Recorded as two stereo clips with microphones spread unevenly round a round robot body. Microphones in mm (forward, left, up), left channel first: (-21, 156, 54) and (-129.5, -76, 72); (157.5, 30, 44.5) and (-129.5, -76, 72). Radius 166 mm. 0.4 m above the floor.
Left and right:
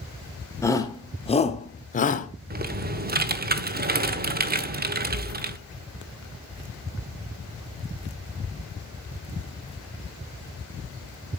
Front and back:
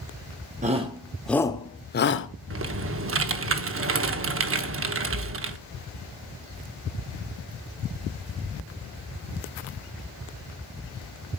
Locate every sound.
0.6 s a shout: 135° left, 1.5 m; by 2.3 s 25° left, 1.5 m
2.5 s typing on a keyboard: 145° right, 1.3 m